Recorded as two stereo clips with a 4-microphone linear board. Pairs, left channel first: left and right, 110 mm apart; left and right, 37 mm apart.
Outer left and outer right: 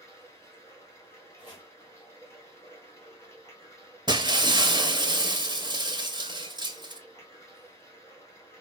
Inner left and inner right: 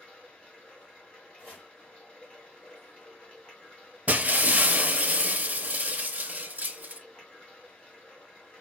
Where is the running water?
25° left (ahead or behind), 1.5 m.